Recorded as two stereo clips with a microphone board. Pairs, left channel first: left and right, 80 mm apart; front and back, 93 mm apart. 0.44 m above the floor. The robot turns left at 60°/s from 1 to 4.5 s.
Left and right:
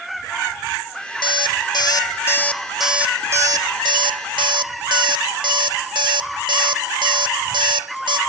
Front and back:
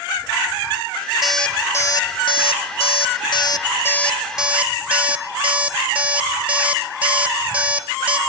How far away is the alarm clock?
About 0.7 m.